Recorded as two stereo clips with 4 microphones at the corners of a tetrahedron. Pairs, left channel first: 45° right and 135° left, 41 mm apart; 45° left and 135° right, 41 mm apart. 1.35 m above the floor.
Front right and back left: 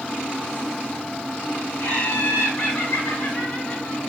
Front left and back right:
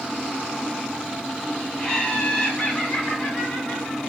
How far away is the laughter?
About 2.5 m.